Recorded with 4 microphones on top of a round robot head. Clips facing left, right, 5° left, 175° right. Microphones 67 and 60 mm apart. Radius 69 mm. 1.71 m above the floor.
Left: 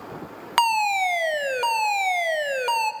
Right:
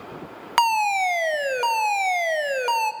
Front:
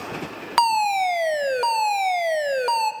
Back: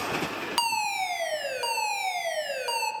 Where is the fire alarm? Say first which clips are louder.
Right 1 dB, front 10 dB; 5° right, 1.0 m.